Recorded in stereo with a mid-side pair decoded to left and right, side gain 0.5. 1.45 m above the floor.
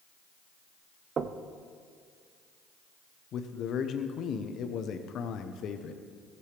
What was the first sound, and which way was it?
Knocking, 45° right.